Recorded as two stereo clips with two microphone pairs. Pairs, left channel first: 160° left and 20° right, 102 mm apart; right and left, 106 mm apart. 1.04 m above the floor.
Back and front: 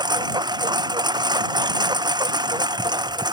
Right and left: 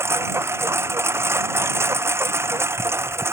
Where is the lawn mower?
25° left.